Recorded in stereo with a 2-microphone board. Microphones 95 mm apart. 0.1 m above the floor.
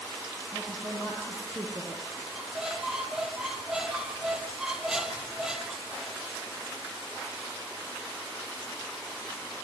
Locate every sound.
0.5 s a woman speaking: 20° right (ahead or behind), 3.5 m
2.3 s a squeak: 5° right (ahead or behind), 1.3 m